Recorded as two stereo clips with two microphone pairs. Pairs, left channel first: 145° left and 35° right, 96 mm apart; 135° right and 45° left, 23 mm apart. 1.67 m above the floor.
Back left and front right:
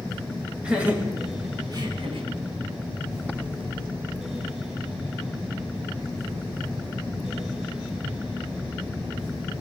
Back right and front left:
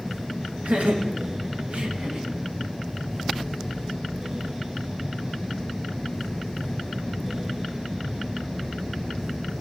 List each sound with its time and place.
0.6 s laughter: 45° left, 3 m; by 2.3 s 20° right, 1.8 m